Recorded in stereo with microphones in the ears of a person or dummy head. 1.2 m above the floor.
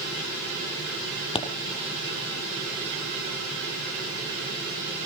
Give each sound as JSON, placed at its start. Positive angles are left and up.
{"t": 1.4, "sound": "a pop", "side_deg": 30, "distance_m": 2.0}